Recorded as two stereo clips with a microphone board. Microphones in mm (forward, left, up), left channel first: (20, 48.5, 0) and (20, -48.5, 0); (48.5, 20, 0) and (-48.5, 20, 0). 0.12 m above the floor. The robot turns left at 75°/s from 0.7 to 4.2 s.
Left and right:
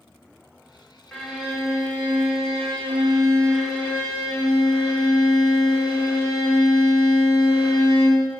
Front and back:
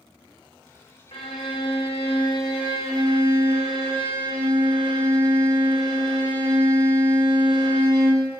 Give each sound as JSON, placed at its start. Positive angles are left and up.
{"t": 1.1, "sound": "a violin", "azimuth_deg": 10, "distance_m": 1.8}